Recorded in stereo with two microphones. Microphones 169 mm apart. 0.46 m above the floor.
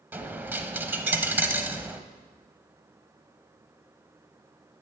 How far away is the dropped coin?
About 0.7 m.